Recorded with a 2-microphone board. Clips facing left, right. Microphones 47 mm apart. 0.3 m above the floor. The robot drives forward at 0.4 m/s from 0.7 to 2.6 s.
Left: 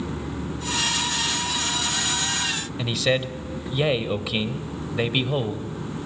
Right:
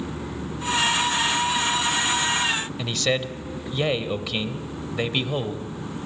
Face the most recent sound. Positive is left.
turn(degrees=5)  # may be behind; listen again after turning